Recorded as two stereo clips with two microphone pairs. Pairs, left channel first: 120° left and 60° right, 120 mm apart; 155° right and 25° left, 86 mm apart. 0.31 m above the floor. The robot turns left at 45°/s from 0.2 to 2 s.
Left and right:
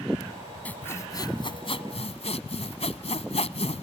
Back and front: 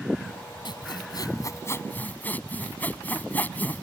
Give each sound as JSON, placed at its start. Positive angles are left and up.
{"t": 0.7, "sound": "sawing", "azimuth_deg": -160}